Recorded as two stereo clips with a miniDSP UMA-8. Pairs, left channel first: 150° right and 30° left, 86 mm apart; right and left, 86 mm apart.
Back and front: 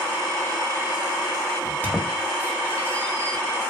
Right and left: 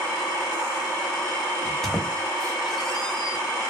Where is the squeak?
165° right, 0.9 m.